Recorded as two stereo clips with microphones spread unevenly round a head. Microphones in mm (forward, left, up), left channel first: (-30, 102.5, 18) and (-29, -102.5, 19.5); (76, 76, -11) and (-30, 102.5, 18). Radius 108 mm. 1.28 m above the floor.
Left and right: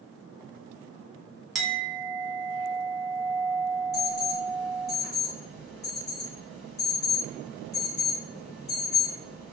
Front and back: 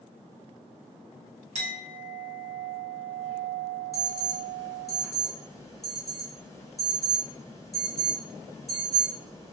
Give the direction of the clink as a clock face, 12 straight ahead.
6 o'clock.